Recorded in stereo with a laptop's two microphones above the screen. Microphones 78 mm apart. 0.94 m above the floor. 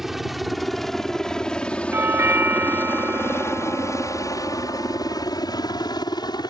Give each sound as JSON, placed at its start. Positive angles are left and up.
{"t": 0.0, "sound": "a helicopter", "side_deg": -5}
{"t": 1.9, "sound": "a doorbell", "side_deg": -30}